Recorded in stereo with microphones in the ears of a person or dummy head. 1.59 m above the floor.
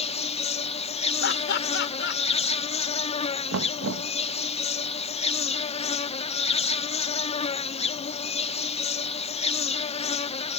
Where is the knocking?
80° right.